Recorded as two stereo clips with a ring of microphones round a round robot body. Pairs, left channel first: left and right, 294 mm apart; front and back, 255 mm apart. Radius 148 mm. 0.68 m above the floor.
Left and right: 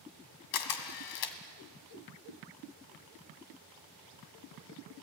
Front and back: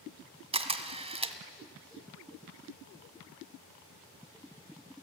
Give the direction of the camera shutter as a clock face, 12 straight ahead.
8 o'clock.